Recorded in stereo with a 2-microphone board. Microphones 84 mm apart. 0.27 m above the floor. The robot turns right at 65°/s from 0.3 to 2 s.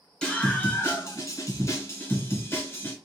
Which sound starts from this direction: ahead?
A scream, at 0.2 s.